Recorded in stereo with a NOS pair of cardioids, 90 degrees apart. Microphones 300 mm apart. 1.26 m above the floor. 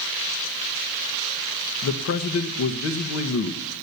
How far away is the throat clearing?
No throat clearing in this recording.